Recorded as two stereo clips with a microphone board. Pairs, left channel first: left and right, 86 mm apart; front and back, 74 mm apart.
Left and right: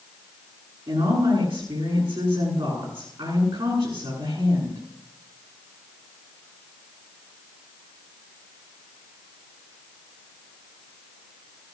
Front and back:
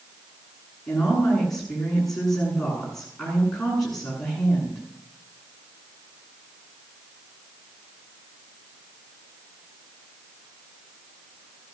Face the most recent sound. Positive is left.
turn(degrees=-85)